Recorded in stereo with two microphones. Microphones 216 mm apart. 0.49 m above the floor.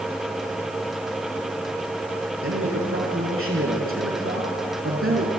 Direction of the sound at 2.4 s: 80° right.